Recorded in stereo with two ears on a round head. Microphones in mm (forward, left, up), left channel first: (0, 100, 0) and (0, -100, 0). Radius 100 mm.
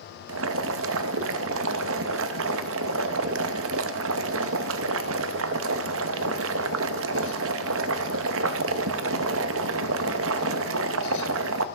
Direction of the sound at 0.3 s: 60° right (ahead or behind).